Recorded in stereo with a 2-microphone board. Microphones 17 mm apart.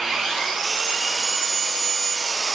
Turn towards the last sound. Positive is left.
turn(degrees=-35)  # may be behind; listen again after turning